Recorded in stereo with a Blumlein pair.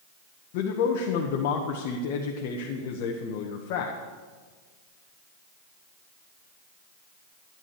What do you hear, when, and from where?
0.5 s a man speaking: 45° left, 1.3 m